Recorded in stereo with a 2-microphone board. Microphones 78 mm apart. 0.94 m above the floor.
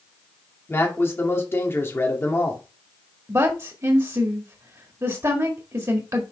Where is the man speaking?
30° left (ahead or behind), 1.9 m.